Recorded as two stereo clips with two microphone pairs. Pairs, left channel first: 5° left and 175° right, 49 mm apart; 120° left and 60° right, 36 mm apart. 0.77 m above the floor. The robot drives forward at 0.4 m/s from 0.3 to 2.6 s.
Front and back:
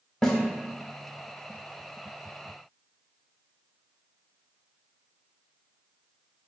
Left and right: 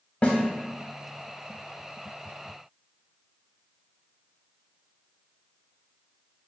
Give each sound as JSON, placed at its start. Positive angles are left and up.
{"t": 0.2, "sound": "a snare drum", "azimuth_deg": 75, "distance_m": 0.7}